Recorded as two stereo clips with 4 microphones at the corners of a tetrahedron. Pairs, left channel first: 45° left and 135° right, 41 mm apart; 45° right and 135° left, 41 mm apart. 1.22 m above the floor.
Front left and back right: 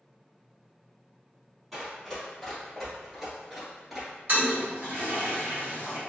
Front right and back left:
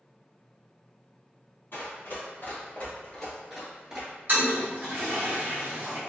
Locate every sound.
1.7 s running footsteps: 50° right, 1.9 m; by 4.1 s 140° left, 1.2 m
4.3 s a toilet flushing: straight behind, 1.2 m